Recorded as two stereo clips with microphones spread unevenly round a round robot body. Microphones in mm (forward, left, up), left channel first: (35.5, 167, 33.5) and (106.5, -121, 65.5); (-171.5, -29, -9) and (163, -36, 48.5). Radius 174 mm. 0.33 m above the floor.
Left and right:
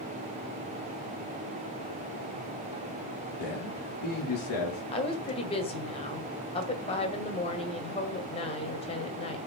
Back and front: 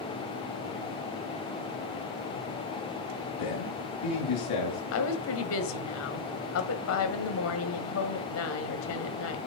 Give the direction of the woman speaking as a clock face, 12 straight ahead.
7 o'clock.